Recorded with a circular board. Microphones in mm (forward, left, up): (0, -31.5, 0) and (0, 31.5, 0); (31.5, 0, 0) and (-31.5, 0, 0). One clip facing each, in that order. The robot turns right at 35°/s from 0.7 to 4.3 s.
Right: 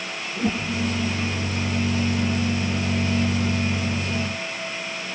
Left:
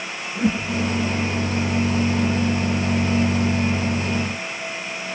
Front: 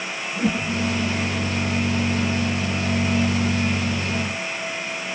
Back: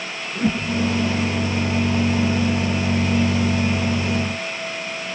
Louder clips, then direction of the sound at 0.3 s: Left 3 dB, back 1 dB; 125° left.